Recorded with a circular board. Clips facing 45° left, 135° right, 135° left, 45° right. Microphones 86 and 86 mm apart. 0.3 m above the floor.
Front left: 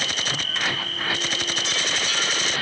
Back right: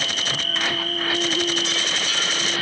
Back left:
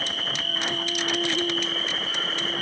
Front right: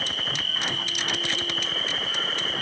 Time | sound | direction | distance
0.0 | an insect | 175° right | ?